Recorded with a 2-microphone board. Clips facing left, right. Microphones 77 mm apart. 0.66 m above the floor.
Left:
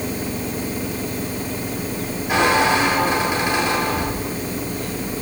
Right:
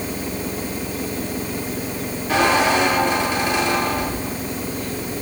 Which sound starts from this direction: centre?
A squeak, at 2.3 s.